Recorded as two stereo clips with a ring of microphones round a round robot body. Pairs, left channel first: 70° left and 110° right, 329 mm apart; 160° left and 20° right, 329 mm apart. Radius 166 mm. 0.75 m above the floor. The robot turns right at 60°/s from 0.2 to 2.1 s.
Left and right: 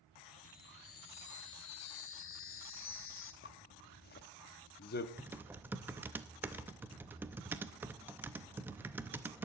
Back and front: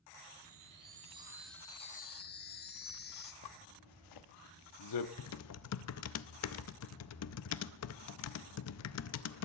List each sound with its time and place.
0.4 s a chime: 5° left, 1.1 m; by 3.3 s 105° left, 1.1 m
3.4 s a zipper: 130° left, 0.8 m
5.2 s typing on a keyboard: 165° left, 0.6 m